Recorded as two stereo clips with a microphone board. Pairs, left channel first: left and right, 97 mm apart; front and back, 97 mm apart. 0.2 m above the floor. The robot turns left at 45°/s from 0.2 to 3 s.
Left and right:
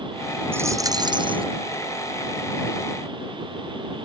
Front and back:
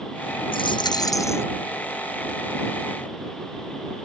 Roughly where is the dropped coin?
Ahead right.